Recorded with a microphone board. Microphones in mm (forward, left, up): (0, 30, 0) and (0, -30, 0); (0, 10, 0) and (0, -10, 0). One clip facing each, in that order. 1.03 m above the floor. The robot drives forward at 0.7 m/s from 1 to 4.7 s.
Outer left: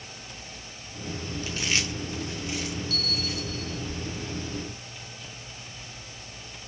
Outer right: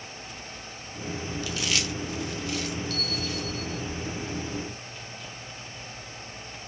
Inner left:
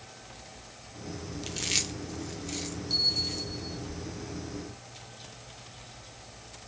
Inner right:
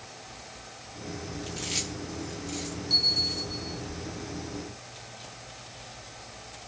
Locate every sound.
1.4 s chewing: 35° left (ahead or behind), 0.9 m; by 3.5 s 15° left (ahead or behind), 1.8 m
2.9 s a bell: 5° left (ahead or behind), 2.5 m